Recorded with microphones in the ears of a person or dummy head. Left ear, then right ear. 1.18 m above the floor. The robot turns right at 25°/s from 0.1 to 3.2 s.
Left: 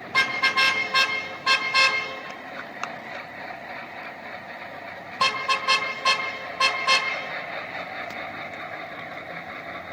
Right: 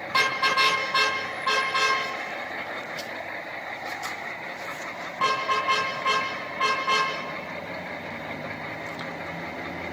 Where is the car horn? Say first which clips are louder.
Left 1 dB; 5° left (ahead or behind), 3 m; by 7.1 s 75° left (ahead or behind), 3 m.